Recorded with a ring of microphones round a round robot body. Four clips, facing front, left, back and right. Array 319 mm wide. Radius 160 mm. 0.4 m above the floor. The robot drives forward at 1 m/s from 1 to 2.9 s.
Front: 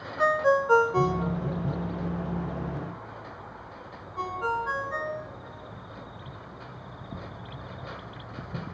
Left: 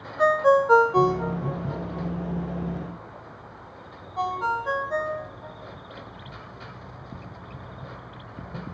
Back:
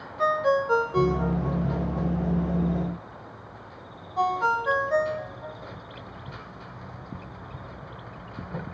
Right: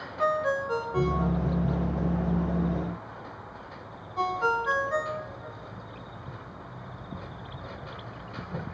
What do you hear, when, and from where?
0.2 s a ringtone: 80° left, 1.0 m; by 5.6 s 155° left, 2 m